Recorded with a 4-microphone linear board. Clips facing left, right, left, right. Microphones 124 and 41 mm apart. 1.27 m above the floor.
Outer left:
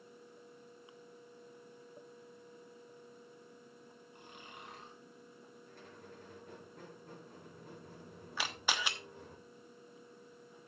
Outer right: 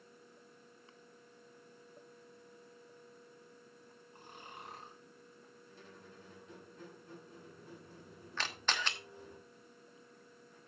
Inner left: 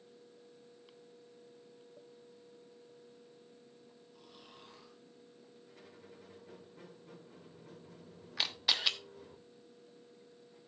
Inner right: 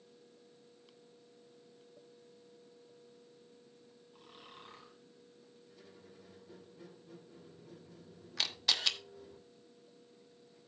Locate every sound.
4.1 s snoring: 35° right (ahead or behind), 4.5 m
5.7 s a squeak: 60° left (ahead or behind), 4 m
8.4 s a camera shutter: 10° left (ahead or behind), 1.1 m